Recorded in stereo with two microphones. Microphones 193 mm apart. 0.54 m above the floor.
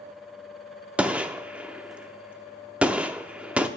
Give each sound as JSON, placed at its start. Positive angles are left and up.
{"t": 1.0, "sound": "a gunshot", "side_deg": -5, "distance_m": 0.6}